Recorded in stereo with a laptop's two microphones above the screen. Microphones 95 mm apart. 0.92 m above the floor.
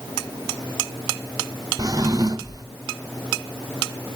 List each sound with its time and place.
1.8 s a drawer: 40° right (ahead or behind), 0.6 m